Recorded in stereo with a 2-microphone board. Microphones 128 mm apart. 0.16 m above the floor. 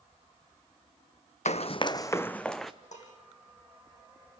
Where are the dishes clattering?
70° left (ahead or behind), 5 m.